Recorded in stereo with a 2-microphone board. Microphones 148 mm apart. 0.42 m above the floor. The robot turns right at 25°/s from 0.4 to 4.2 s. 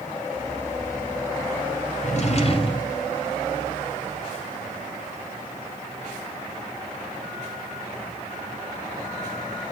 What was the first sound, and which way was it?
A drawer, 55° left (ahead or behind).